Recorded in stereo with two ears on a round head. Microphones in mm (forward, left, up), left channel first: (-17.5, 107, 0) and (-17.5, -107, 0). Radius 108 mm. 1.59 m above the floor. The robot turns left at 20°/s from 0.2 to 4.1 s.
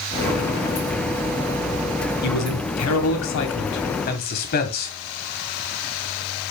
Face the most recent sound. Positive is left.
turn(degrees=40)